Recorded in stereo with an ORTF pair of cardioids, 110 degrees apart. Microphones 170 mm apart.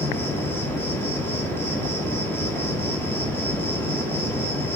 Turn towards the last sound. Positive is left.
turn(degrees=15)